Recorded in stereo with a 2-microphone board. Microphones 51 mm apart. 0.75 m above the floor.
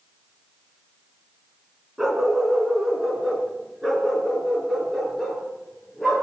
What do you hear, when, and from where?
2.0 s a dog barking: 10° right (ahead or behind), 3 m; by 6.2 s 5° right (ahead or behind), 5.5 m